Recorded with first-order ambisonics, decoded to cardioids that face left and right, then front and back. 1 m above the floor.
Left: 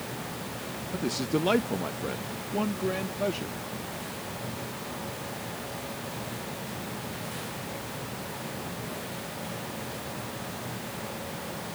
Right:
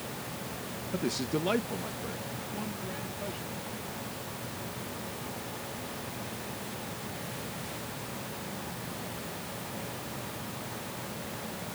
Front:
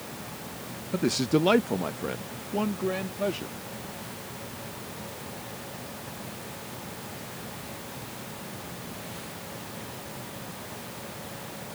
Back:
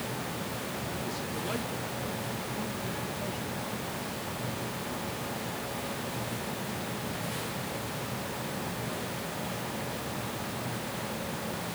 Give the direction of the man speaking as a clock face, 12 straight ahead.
12 o'clock.